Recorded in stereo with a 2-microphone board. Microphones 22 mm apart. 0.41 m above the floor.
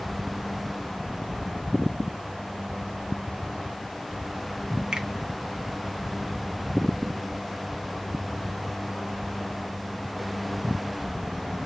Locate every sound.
4.9 s a finger snap: 45° right (ahead or behind), 1.2 m